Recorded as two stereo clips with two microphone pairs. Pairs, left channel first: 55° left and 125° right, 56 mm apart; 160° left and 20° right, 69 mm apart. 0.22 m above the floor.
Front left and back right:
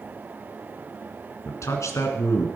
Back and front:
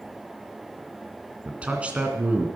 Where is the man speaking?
50° left, 2.5 m.